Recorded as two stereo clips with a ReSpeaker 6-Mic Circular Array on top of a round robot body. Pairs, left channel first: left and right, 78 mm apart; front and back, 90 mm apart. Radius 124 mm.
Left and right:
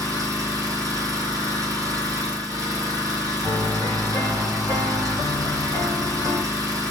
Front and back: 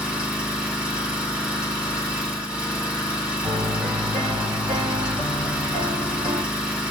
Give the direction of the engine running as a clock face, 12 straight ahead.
3 o'clock.